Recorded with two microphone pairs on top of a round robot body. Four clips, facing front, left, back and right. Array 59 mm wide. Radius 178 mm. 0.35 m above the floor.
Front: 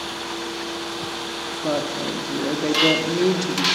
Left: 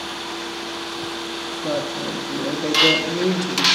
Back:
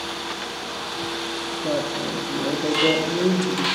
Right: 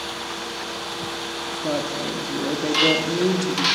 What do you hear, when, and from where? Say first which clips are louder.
1.6 s a woman speaking: left 1 dB, front 1 dB; 15° right, 1.2 m